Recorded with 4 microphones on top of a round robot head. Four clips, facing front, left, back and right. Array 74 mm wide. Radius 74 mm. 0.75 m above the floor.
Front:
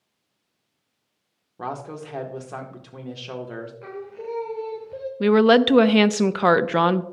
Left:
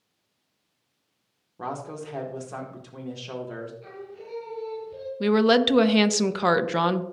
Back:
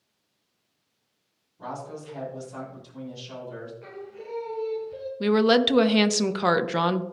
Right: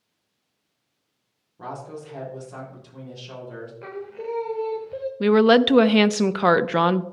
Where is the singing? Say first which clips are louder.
Right 8 dB, front 6 dB; 65° right, 1.1 m.